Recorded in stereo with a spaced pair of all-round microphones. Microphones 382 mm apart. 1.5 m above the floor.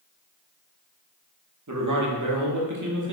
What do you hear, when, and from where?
1.7 s a man speaking: 50° right (ahead or behind), 0.7 m